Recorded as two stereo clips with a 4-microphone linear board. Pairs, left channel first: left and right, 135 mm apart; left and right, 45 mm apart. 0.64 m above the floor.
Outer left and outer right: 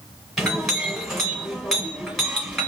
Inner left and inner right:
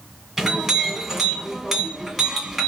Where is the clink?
Centre (ahead or behind), 2.0 m.